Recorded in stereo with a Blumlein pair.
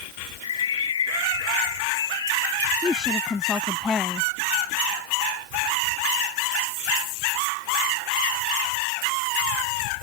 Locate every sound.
0.4 s a bird: 65° left
2.8 s a woman speaking: 10° left